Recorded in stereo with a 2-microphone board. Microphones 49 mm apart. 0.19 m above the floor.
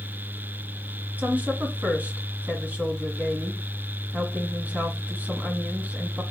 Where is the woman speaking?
35° right (ahead or behind), 1.5 m.